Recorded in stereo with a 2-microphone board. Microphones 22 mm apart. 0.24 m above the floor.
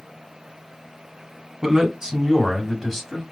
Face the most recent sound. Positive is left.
turn(degrees=5)  # may be behind; listen again after turning